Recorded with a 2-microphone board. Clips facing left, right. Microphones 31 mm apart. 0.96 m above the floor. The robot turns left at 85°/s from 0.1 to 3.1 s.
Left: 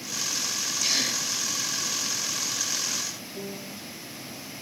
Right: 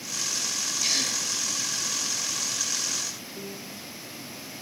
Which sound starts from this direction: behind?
A gasp, at 0.8 s.